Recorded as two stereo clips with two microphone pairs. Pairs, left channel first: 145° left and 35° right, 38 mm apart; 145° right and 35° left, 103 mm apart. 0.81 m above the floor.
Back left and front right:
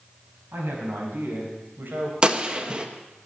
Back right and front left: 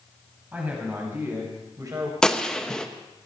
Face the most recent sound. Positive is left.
turn(degrees=-65)